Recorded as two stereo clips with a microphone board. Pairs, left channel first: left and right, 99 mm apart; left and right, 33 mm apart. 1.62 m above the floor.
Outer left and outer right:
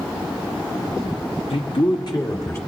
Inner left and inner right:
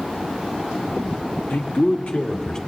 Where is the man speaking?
80° left, 1.3 m; by 2.6 s 25° left (ahead or behind), 1.8 m.